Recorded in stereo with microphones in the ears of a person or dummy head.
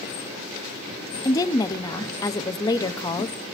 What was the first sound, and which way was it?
A woman speaking, 25° left (ahead or behind).